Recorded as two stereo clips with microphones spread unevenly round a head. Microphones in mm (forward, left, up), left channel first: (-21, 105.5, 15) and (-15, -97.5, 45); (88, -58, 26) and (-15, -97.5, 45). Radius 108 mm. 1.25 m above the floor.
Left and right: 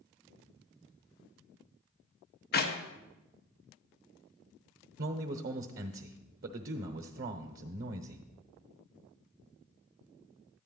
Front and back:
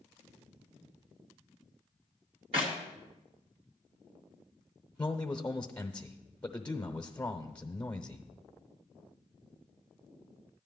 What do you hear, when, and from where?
2.5 s a clap: 135° left, 1.1 m
5.0 s a man speaking: 45° right, 0.8 m